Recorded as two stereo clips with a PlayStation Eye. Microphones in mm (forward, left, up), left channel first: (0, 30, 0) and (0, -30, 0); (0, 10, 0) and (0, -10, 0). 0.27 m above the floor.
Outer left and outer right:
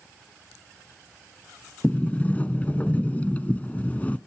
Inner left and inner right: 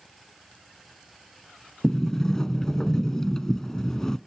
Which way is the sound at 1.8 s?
25° left (ahead or behind).